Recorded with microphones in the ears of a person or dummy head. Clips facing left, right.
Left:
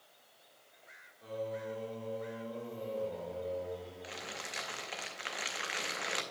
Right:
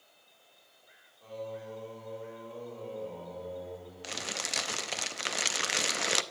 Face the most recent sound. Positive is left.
turn(degrees=-55)  # may be behind; listen again after turning